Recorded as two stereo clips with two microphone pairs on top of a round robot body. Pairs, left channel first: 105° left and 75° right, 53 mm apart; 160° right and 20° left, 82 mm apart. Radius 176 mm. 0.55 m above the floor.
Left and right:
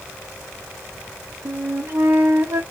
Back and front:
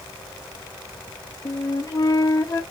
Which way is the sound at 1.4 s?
125° right.